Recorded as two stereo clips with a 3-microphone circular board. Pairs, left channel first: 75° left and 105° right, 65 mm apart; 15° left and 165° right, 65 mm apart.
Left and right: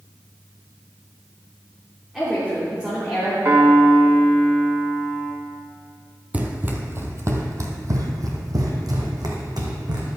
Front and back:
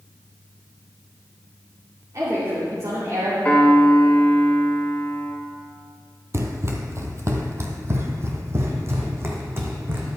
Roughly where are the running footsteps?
Behind.